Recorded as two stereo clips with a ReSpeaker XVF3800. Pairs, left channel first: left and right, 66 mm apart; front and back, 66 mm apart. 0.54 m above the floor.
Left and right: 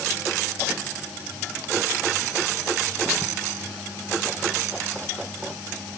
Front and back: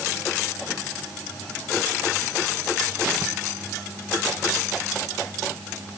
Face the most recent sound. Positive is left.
No sound to turn to.